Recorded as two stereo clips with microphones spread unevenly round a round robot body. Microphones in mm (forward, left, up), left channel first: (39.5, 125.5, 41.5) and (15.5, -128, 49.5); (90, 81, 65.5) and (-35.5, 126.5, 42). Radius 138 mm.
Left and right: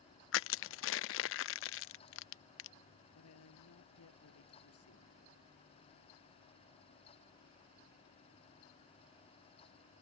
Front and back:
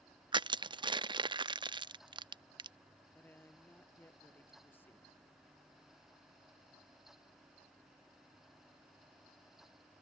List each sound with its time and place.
0.3 s crushing: 110° left
3.1 s a woman speaking: 55° left